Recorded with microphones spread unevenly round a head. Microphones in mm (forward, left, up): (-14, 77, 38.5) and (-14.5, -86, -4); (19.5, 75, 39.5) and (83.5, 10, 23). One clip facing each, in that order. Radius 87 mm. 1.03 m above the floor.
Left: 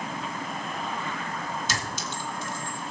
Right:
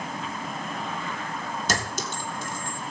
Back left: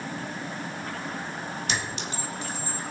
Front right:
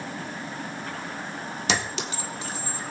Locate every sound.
1.7 s a clink: 40° right, 1.4 m